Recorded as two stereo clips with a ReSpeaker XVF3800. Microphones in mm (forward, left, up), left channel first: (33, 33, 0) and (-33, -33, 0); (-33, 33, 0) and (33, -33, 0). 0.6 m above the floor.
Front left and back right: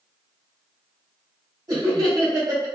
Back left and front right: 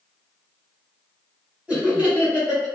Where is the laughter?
115° right, 1.7 m.